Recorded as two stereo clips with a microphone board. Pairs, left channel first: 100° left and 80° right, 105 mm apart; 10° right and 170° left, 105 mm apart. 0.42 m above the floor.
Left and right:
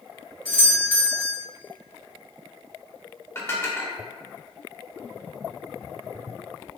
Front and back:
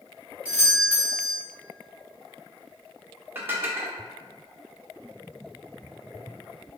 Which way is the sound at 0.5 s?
115° left.